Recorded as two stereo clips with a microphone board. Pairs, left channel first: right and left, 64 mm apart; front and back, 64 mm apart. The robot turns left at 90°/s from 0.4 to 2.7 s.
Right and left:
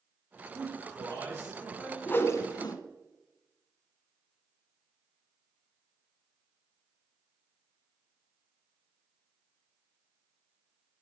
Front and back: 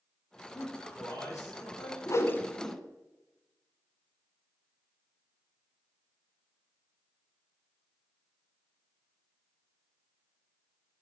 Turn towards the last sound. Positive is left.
turn(degrees=-90)